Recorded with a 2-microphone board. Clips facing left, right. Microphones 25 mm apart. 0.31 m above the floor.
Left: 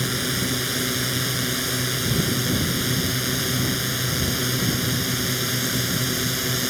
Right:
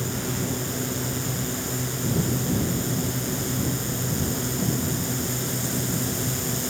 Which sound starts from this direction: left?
A drone, at 0.0 s.